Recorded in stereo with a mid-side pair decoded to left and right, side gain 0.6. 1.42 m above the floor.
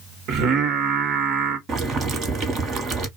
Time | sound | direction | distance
0.3 | singing | 60° right | 1.2 m
1.7 | boiling | 45° right | 1.3 m